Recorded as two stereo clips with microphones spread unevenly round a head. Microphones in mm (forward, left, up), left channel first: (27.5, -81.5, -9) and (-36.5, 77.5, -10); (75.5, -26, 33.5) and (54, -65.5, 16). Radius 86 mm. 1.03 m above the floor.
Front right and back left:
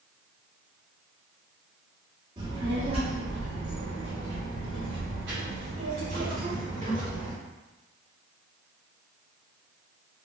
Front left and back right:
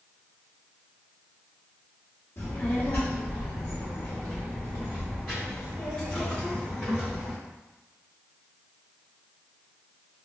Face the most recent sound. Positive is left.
turn(degrees=165)